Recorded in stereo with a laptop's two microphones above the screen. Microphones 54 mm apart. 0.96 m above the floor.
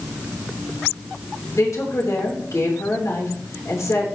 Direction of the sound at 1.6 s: 70° left (ahead or behind).